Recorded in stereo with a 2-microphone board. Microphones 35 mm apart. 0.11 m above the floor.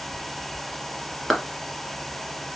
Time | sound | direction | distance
1.3 | a clap | centre (ahead or behind) | 1.0 m